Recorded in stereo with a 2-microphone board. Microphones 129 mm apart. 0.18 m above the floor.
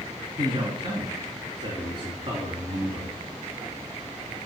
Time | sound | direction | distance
0.4 | a man speaking | 40° right (ahead or behind) | 2.5 m